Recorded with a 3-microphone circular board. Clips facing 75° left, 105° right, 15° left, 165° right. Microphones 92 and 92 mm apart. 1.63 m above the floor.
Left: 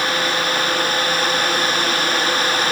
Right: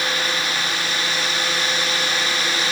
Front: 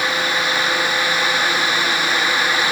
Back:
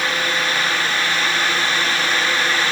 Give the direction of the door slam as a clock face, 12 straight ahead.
I don't hear a door slam.